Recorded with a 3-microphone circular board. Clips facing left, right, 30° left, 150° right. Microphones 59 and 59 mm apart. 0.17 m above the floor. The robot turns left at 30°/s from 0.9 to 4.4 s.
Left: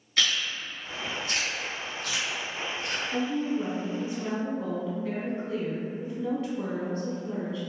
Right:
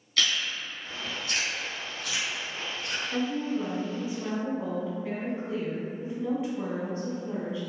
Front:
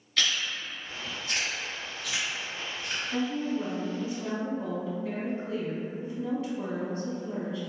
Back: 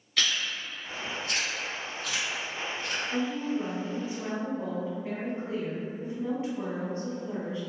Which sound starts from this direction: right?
A woman speaking, at 3.1 s.